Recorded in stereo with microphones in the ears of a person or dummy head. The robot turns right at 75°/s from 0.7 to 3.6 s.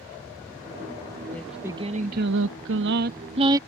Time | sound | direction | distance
1.3 | singing | 170° left | ?